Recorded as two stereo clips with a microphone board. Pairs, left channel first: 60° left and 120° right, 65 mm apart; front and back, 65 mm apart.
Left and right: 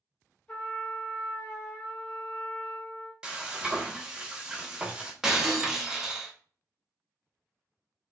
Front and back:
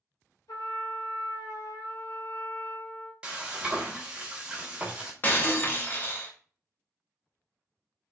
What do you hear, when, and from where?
0.5 s a trumpet: 10° right, 1.0 m
3.2 s frying: 155° right, 0.6 m
5.2 s breaking glass: 45° right, 0.6 m